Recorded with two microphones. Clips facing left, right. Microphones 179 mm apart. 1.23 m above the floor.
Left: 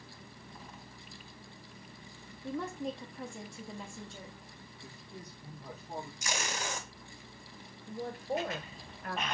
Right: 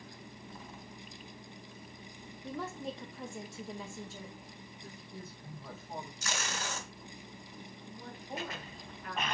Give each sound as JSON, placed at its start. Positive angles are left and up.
{"t": 2.4, "sound": "a woman speaking", "side_deg": 0, "distance_m": 0.7}
{"t": 4.8, "sound": "a man speaking", "side_deg": 20, "distance_m": 1.6}
{"t": 6.2, "sound": "tape being pulled", "side_deg": 15, "distance_m": 1.0}
{"t": 7.9, "sound": "a woman speaking", "side_deg": 50, "distance_m": 1.0}